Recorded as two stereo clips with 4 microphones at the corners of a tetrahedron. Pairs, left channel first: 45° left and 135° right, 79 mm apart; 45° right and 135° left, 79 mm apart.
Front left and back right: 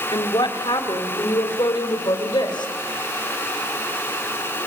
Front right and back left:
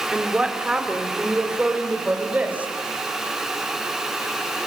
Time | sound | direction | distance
0.1 | a woman speaking | 55° left | 3 m